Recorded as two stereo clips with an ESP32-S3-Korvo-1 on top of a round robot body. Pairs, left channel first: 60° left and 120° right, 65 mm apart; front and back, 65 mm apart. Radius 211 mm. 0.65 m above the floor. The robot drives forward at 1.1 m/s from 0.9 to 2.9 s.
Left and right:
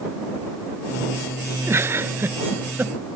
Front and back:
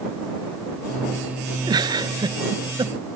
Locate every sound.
1.7 s a giggle: 170° right; by 3.0 s 175° right